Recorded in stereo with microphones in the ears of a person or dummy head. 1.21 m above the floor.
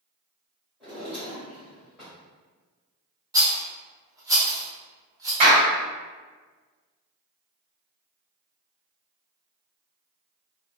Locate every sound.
0.8 s a drawer: centre (ahead or behind), 1.3 m
3.3 s a rattle: 15° right (ahead or behind), 0.6 m
5.4 s a clap: 40° right (ahead or behind), 1.3 m